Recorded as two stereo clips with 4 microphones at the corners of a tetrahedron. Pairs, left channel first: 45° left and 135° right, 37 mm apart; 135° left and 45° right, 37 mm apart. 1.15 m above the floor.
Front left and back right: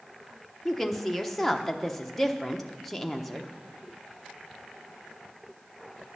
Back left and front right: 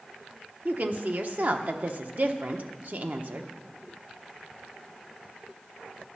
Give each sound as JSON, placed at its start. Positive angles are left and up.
{"t": 0.7, "sound": "a woman speaking", "azimuth_deg": -40, "distance_m": 0.9}